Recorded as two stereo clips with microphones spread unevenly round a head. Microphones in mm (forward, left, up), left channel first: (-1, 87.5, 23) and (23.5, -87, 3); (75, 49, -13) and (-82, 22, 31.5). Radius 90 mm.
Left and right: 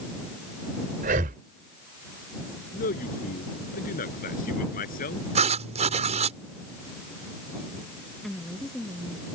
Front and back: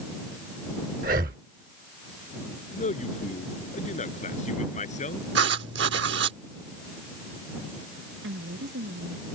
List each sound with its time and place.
1.0 s breathing: 130° right
2.7 s a man speaking: 55° left
5.3 s writing: 140° right
8.2 s a woman speaking: 175° right